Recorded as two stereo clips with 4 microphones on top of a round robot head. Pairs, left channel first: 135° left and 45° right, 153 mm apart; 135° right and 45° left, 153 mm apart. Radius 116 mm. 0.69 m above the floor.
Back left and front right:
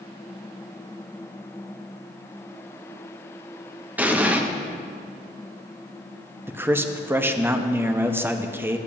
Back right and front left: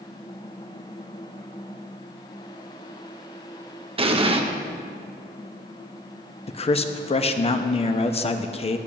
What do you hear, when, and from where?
4.0 s an explosion: 30° left, 1.0 m
6.5 s a man speaking: 115° right, 0.7 m